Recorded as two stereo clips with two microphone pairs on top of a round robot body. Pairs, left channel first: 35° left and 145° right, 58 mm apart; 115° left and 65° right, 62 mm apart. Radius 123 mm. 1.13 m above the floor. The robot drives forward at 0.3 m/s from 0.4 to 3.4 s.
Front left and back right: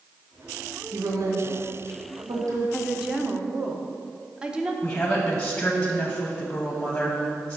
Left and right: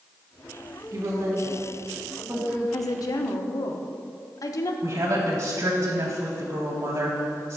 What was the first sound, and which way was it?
A woman speaking, 105° right.